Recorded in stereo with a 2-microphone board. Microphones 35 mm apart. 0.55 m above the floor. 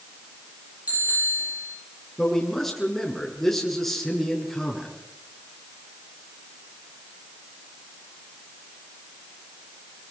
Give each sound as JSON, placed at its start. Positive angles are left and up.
{"t": 0.9, "sound": "a bicycle bell", "side_deg": -45, "distance_m": 8.0}
{"t": 2.2, "sound": "a man speaking", "side_deg": 5, "distance_m": 6.0}